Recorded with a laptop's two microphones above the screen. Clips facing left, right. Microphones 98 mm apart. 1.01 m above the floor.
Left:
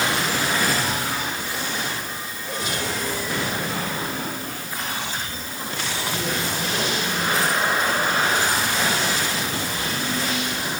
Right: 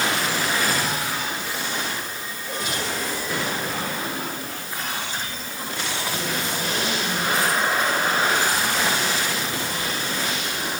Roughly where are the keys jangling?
No keys jangling in this recording.